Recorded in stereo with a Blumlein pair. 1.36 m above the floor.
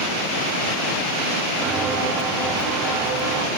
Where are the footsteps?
20° right, 5 m; by 3.5 s 40° right, 4 m.